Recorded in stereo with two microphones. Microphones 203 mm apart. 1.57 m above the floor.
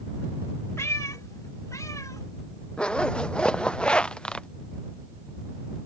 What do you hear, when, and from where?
0.8 s a cat meowing: 15° left (ahead or behind)
2.8 s a zipper: 5° left (ahead or behind)